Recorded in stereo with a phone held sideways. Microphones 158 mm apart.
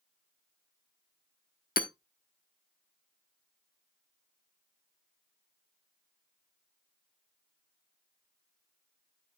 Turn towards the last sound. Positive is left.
turn(degrees=70)  # may be behind; listen again after turning